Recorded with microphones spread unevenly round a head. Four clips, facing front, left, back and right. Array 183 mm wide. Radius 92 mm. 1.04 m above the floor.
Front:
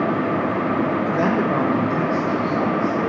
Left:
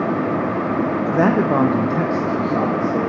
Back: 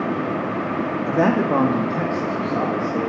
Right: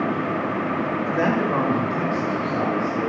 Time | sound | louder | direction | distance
1.1 | a man speaking | left 5 dB, back 1 dB | 140° left | 0.8 m